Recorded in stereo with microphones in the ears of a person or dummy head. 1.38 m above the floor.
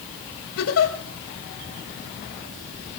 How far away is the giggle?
About 2.0 m.